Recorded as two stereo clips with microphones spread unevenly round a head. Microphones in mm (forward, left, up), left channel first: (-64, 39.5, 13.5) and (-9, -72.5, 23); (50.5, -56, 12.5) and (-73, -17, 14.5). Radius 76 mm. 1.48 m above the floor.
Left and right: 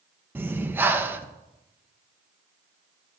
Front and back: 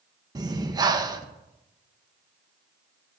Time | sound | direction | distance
0.3 | breathing | 140° right | 1.4 m